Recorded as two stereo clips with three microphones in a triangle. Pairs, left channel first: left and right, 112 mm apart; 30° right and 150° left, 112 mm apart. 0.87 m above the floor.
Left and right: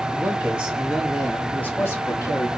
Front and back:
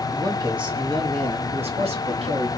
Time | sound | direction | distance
0.1 | a man speaking | 160° right | 1.6 m